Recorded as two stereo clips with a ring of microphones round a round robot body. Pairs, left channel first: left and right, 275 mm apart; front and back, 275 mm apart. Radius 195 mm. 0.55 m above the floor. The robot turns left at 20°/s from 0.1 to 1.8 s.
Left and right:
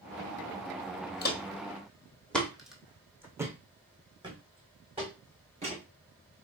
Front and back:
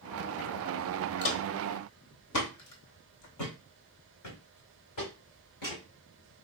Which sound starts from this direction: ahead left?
Footsteps, at 1.2 s.